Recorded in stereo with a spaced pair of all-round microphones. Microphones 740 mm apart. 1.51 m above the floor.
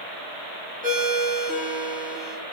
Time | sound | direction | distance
0.8 | a ringtone | 10° right (ahead or behind) | 1.2 m